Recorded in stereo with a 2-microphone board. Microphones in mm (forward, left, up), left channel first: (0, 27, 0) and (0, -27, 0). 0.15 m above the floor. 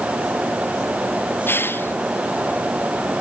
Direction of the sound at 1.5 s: 45° left (ahead or behind).